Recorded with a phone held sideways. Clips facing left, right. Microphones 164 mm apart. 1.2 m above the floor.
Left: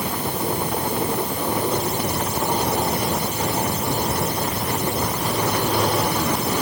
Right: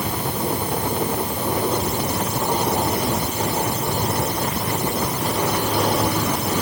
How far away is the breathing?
I don't hear breathing.